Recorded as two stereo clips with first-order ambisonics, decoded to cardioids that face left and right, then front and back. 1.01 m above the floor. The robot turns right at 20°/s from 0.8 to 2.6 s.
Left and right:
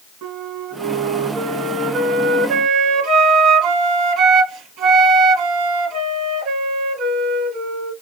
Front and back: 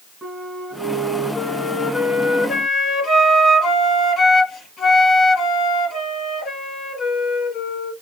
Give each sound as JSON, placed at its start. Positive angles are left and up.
{"t": 0.2, "sound": "a flute", "azimuth_deg": -90, "distance_m": 1.4}